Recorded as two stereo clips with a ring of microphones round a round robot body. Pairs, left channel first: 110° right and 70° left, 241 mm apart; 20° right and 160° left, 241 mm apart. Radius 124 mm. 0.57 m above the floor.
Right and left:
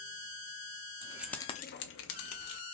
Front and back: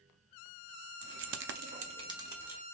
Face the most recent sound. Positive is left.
turn(degrees=-120)